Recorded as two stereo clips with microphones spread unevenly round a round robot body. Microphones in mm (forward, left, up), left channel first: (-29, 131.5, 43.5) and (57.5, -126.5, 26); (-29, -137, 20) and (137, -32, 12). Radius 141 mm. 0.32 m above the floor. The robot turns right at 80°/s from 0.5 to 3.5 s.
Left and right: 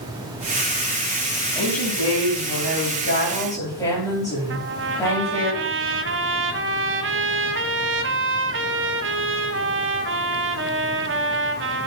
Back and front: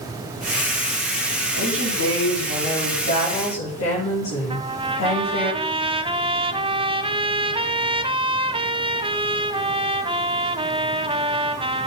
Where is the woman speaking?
35° left, 8.5 m; by 5.5 s 170° right, 8.5 m.